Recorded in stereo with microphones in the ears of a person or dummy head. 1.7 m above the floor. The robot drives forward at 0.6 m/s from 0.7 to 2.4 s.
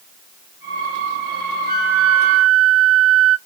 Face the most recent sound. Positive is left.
turn(degrees=-70)  # may be behind; listen again after turning